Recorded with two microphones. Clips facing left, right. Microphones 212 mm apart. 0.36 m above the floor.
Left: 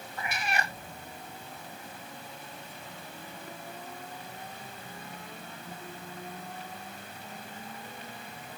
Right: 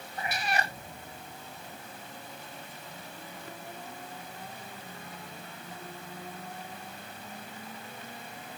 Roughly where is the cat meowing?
Right.